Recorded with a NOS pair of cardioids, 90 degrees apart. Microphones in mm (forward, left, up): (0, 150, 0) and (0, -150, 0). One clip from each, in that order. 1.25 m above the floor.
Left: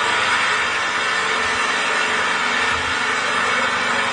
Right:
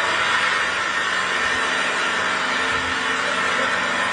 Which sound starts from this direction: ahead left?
An engine running, at 0.0 s.